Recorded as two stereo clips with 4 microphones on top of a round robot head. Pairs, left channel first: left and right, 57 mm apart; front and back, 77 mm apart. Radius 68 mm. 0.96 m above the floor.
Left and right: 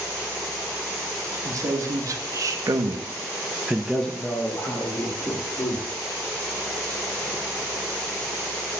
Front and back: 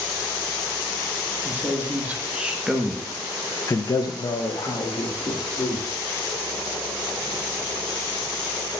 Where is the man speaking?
115° right, 2 m; by 5.9 s 45° left, 2 m.